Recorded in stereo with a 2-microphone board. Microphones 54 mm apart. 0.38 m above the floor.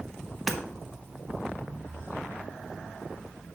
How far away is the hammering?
About 0.8 m.